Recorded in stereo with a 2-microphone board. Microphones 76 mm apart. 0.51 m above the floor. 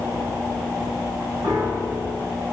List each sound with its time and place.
1.4 s a piano: 60° right (ahead or behind), 5.5 m